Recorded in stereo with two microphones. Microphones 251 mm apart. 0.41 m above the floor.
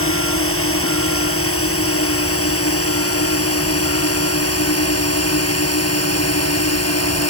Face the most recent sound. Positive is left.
turn(degrees=80)